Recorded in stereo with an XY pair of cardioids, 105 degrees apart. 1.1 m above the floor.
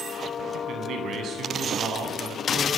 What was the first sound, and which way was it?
A man speaking, 60° right.